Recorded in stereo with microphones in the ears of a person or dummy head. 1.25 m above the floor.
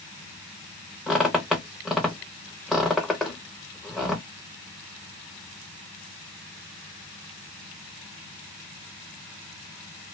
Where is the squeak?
5° right (ahead or behind), 0.6 m.